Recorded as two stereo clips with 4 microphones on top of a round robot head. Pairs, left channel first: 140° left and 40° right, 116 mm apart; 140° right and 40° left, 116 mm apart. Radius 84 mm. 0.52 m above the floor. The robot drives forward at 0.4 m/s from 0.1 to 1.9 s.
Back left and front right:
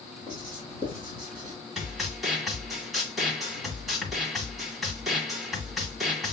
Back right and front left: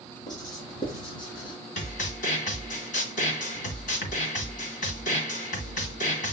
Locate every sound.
0.3 s writing: 85° right, 3.5 m; by 1.6 s 90° right, 3.5 m
1.8 s a snare drum: 130° right, 1.7 m